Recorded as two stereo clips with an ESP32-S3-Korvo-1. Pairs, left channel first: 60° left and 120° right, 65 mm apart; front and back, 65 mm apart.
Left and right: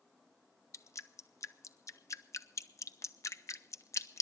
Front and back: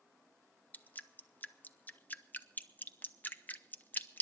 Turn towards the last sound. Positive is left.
turn(degrees=55)